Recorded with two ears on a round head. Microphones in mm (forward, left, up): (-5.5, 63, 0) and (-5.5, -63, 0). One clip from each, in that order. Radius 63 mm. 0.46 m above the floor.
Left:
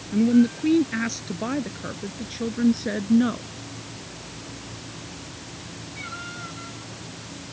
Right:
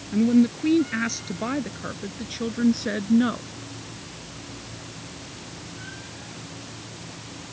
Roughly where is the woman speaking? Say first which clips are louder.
Left 1 dB; centre.